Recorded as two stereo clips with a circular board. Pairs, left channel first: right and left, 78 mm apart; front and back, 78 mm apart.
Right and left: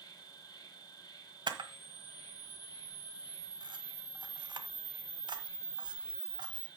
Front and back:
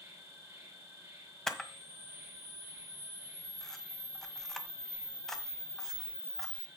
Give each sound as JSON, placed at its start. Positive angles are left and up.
{"t": 0.0, "sound": "an insect", "azimuth_deg": -120, "distance_m": 5.0}
{"t": 1.5, "sound": "a camera shutter", "azimuth_deg": 85, "distance_m": 1.4}